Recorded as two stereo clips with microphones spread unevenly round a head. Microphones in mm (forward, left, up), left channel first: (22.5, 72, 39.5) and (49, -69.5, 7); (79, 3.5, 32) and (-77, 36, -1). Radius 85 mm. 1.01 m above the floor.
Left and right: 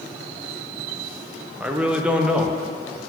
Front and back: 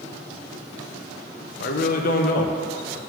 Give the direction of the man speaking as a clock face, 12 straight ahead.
1 o'clock.